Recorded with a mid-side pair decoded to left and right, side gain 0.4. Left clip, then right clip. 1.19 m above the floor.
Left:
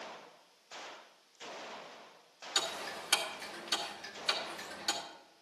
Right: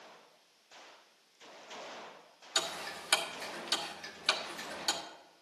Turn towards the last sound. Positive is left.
turn(degrees=-45)